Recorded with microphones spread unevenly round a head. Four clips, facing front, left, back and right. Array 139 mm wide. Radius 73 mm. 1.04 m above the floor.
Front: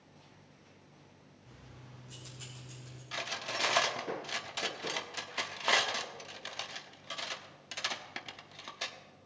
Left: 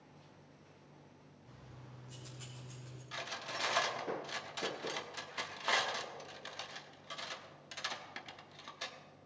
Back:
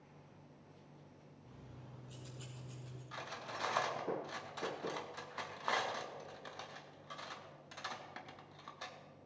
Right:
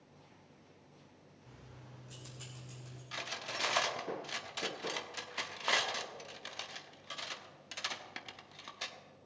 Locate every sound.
1.5 s keys jangling: 100° right, 1.9 m; by 3.0 s 115° right, 3 m
3.1 s cutlery clinking: 25° right, 1.1 m